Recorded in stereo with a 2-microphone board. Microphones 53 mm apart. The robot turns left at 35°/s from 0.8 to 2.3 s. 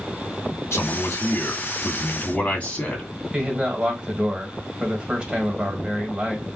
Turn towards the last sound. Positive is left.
turn(degrees=-20)  # may be behind; listen again after turning